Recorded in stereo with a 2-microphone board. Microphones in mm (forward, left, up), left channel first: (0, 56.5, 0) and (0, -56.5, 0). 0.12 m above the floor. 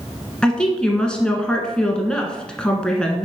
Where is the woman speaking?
5° left (ahead or behind), 1.1 m.